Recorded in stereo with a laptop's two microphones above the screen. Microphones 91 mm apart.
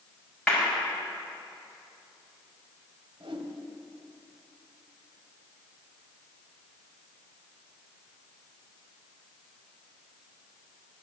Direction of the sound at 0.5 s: 10° left (ahead or behind).